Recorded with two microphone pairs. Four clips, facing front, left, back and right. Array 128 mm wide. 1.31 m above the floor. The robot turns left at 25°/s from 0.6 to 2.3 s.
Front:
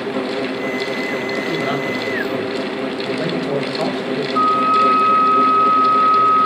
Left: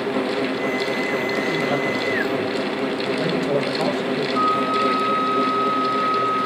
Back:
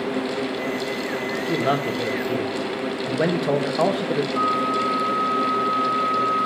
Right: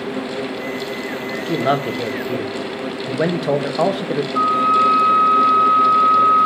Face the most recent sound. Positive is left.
turn(degrees=-25)